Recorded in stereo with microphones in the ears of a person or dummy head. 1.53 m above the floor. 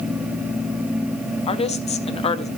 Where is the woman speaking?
35° left (ahead or behind), 0.9 m.